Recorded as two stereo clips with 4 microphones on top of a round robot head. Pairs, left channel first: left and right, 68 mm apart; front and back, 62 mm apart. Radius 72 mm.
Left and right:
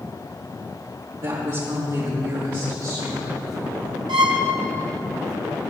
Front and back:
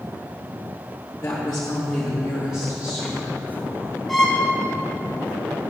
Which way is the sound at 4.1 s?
85° right.